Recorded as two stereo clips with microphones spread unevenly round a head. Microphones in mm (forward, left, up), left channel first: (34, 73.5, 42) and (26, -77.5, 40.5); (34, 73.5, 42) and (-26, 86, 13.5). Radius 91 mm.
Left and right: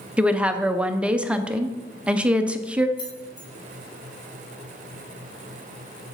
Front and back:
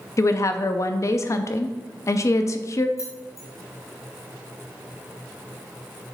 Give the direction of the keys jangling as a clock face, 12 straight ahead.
11 o'clock.